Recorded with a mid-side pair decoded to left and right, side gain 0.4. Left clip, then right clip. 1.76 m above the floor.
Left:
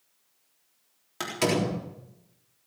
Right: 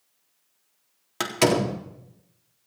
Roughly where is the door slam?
Ahead right.